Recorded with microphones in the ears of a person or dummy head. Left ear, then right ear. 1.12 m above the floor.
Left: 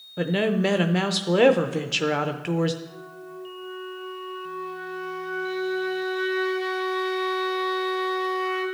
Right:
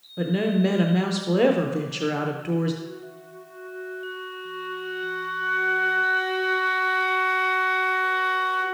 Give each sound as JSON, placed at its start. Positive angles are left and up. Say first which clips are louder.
{"t": 0.2, "sound": "a woman speaking", "louder": "left 1 dB", "side_deg": 35, "distance_m": 0.5}
{"t": 2.8, "sound": "a flute", "louder": "right 1 dB", "side_deg": -15, "distance_m": 4.5}